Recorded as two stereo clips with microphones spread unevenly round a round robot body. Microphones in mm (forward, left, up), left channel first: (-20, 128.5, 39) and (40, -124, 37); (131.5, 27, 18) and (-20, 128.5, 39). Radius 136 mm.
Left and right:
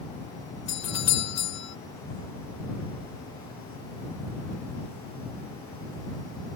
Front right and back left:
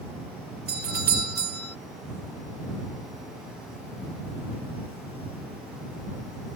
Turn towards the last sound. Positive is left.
turn(degrees=115)